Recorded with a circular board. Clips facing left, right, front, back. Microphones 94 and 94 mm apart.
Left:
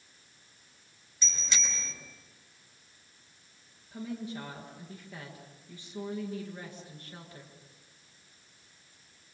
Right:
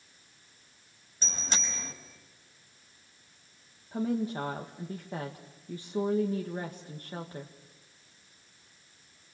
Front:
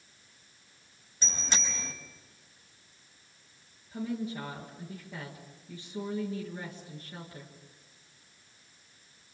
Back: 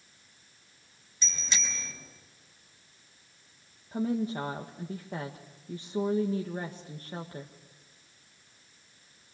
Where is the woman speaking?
135° right, 1.8 m.